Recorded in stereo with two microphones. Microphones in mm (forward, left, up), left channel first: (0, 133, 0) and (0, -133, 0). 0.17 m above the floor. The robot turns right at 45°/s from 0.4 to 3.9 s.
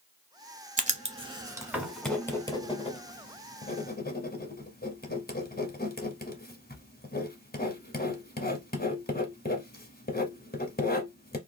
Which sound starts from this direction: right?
Writing, at 0.8 s.